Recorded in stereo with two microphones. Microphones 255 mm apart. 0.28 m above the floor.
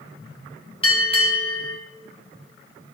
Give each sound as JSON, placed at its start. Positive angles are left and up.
{"t": 0.8, "sound": "a bell", "side_deg": 20, "distance_m": 2.0}